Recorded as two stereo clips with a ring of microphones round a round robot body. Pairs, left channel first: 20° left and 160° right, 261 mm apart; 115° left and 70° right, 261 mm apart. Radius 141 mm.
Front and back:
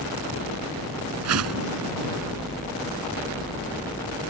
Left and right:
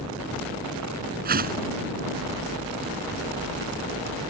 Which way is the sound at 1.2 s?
125° right.